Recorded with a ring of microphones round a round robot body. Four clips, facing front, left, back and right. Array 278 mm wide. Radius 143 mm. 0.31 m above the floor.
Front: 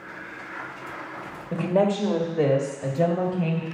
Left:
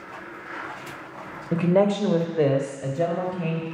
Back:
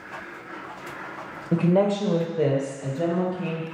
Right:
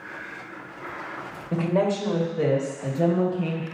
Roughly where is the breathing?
I don't hear breathing.